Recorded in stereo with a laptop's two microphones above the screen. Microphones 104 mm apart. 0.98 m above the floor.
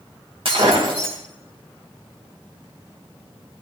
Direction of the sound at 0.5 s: 60° right (ahead or behind).